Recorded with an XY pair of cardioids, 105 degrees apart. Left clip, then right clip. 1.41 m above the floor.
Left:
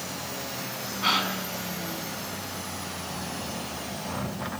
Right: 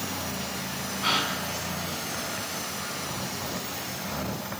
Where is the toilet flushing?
No toilet flushing in this recording.